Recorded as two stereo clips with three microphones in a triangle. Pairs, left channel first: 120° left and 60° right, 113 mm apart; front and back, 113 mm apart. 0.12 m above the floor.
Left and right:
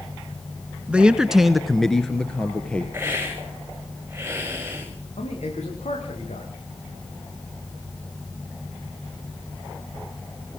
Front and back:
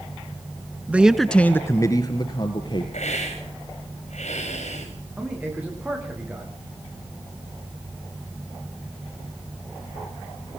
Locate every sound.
0.9 s a man speaking: 125° right, 1.3 m; by 2.8 s 40° left, 2.5 m
2.9 s a hiss: 10° left, 7 m
5.2 s a man speaking: 105° left, 9 m